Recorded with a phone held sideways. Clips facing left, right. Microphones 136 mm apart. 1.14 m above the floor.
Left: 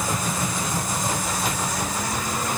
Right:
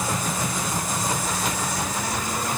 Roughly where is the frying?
No frying in this recording.